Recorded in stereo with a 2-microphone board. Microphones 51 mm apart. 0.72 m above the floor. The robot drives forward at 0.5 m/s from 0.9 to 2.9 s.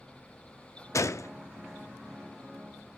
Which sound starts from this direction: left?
A gunshot, at 0.9 s.